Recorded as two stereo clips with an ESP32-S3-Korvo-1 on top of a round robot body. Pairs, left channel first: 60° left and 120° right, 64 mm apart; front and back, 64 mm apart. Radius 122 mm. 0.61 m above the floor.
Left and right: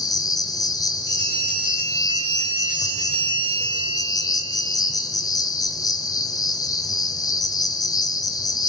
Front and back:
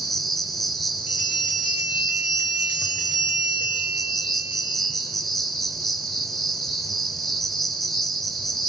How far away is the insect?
About 0.9 m.